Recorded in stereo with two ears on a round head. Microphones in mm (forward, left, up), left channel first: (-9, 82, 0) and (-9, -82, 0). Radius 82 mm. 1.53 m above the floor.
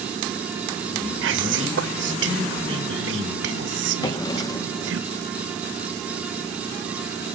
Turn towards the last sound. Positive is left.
turn(degrees=20)  # may be behind; listen again after turning